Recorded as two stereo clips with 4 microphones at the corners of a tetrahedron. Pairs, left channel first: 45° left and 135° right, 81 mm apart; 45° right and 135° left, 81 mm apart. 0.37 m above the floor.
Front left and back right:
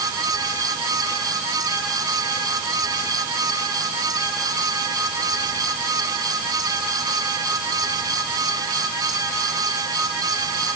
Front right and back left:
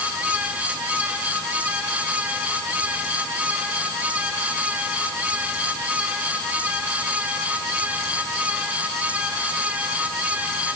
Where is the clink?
I don't hear a clink.